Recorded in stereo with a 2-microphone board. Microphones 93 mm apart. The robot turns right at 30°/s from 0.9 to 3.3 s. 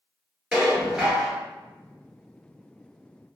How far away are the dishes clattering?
About 1.1 m.